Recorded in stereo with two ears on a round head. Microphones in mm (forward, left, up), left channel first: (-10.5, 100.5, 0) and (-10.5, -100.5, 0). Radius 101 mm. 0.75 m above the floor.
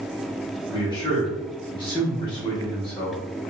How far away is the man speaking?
About 1.3 m.